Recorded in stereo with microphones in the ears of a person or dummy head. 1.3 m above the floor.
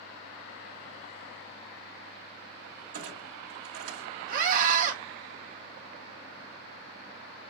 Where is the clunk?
85° right, 1.4 m.